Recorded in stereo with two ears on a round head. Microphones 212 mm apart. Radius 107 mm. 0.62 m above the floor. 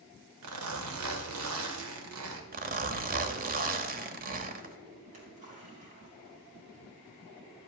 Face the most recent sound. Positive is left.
turn(degrees=-30)  # may be behind; listen again after turning